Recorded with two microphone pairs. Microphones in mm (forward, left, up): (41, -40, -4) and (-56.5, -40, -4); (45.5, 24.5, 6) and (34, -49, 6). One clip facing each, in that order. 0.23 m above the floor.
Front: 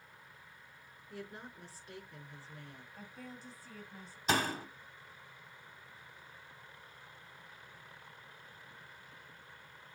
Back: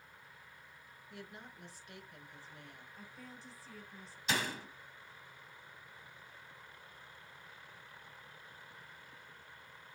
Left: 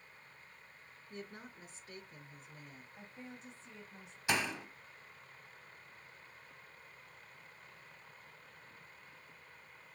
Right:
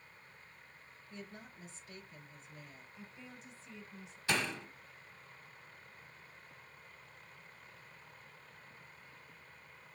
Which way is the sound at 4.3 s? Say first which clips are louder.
Front 4 dB, even; 15° left.